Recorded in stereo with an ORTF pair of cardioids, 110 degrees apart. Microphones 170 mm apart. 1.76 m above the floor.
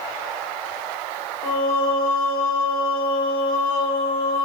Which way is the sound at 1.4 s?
65° left.